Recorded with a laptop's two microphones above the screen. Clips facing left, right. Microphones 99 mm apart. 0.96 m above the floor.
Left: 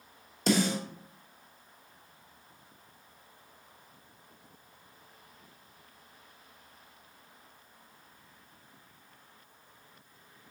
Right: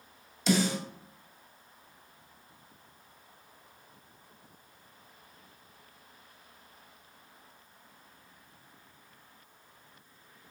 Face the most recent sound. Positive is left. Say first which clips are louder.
# even
turn(degrees=50)  # may be behind; listen again after turning